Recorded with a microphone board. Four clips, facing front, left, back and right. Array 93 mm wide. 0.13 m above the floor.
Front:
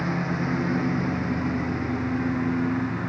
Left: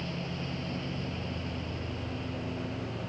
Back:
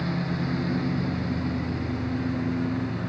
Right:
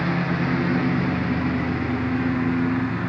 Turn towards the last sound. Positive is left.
turn(degrees=-65)